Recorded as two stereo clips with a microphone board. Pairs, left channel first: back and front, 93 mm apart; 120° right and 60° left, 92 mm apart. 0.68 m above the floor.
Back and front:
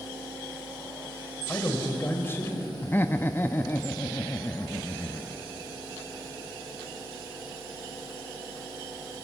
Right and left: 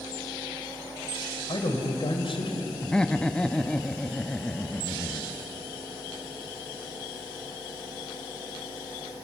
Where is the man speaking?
115° right, 3.5 m.